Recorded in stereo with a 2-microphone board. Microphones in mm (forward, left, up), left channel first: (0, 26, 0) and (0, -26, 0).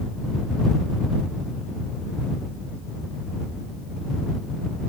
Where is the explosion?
No explosion in this recording.